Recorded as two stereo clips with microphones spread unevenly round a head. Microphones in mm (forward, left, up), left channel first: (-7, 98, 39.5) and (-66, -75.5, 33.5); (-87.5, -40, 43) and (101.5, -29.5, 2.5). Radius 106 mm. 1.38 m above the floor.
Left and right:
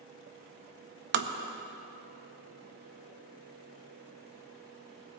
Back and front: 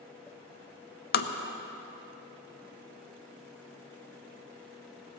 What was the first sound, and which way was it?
Tapping, 140° right.